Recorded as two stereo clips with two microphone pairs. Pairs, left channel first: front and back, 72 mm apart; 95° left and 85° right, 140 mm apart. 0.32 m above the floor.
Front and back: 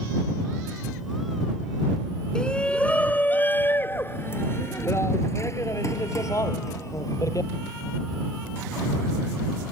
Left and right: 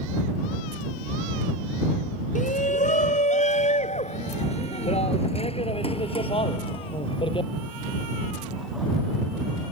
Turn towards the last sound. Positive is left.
turn(degrees=40)